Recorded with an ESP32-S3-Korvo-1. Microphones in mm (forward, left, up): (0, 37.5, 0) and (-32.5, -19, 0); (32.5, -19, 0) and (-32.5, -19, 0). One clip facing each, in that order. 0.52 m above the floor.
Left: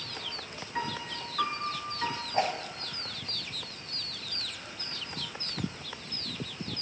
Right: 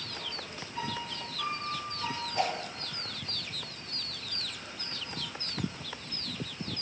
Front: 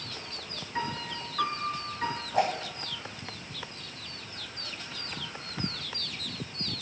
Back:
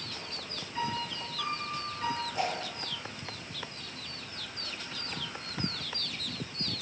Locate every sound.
0.8 s a piano: 35° left, 1.5 m
2.3 s a whoosh: 10° left, 2.5 m